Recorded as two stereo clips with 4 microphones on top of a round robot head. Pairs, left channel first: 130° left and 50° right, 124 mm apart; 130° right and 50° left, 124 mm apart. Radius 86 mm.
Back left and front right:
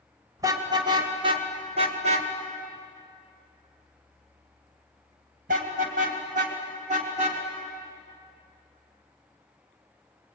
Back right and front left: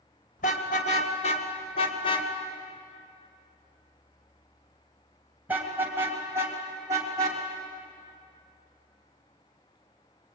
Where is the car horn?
110° right, 2.5 m; by 7.4 s 15° right, 3.5 m.